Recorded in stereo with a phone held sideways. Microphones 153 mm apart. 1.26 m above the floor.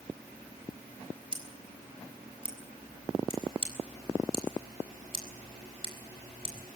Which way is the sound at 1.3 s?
35° right (ahead or behind).